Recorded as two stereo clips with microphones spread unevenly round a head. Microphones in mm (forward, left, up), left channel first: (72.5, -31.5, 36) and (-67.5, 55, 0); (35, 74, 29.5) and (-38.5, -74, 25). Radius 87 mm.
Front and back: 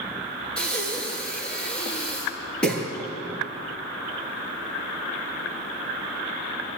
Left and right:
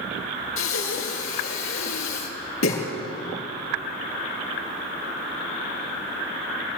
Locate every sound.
0.6 s breathing: 50° left, 5 m